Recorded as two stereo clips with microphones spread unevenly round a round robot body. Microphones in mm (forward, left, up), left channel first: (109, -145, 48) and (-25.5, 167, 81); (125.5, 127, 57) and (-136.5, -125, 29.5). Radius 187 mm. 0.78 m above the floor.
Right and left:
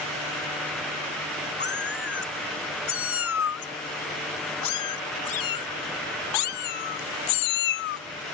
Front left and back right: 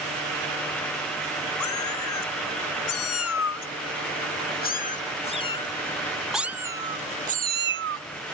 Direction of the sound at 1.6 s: 5° right.